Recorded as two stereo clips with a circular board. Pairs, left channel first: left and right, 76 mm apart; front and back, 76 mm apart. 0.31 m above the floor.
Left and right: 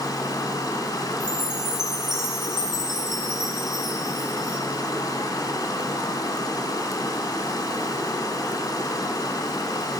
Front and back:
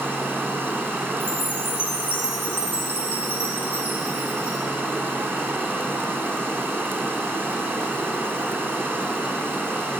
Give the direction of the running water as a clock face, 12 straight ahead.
8 o'clock.